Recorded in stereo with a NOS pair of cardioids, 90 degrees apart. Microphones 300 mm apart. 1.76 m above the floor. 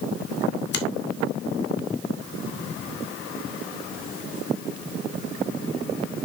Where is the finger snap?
40° left, 2 m.